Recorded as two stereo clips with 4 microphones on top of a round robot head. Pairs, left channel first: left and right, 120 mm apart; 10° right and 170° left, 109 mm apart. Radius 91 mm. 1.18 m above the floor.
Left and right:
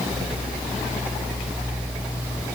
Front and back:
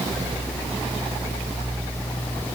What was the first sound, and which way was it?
Only background noise.